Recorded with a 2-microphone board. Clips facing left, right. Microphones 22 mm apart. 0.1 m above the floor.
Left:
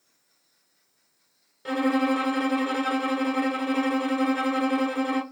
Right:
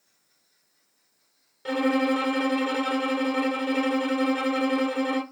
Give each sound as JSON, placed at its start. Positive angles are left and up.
{"t": 1.6, "sound": "a violin", "side_deg": 0, "distance_m": 0.7}